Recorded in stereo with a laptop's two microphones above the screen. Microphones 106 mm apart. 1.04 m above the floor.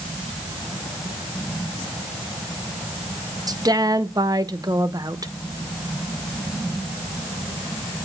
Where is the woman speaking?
35° right (ahead or behind), 0.8 m.